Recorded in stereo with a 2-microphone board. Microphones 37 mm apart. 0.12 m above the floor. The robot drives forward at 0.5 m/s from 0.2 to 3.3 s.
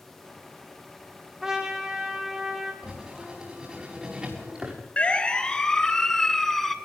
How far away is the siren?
About 2.5 m.